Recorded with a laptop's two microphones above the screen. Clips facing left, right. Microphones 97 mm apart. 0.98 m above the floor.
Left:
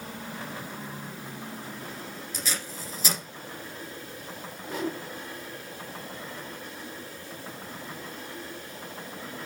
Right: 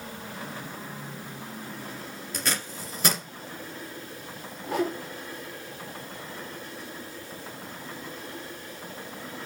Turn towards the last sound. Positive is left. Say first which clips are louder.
# right 4 dB
turn(degrees=-65)  # may be behind; listen again after turning